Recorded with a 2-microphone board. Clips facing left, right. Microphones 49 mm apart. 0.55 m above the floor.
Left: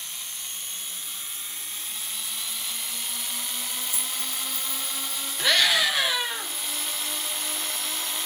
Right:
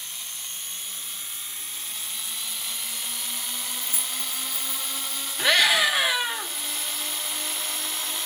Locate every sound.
3.8 s keys jangling: 40° right (ahead or behind), 0.7 m; by 5.3 s centre (ahead or behind), 1.6 m
5.4 s a scream: 20° right (ahead or behind), 1.4 m